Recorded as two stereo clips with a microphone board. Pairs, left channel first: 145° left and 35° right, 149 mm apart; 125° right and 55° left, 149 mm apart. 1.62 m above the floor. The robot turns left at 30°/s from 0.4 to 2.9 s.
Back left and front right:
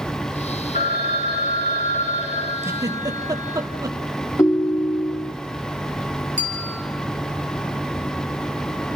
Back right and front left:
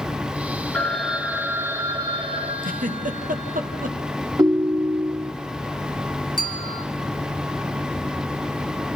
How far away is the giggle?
About 1.3 m.